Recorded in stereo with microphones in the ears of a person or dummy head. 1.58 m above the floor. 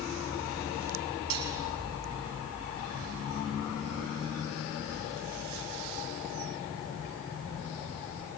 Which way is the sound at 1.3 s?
80° right.